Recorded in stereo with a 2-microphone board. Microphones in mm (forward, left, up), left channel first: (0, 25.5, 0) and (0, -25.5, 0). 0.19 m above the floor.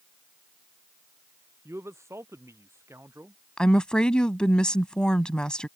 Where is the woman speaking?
15° left (ahead or behind).